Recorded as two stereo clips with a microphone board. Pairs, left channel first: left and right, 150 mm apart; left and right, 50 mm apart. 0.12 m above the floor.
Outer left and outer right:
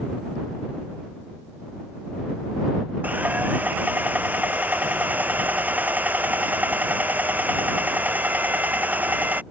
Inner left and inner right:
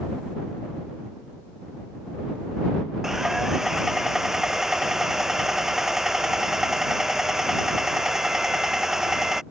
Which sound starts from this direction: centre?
Sawing, at 3.0 s.